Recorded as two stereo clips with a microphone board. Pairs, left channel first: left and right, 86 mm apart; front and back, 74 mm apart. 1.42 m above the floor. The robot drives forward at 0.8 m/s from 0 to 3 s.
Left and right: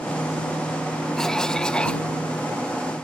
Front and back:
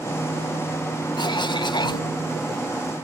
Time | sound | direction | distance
1.2 | a cough | 5° left | ?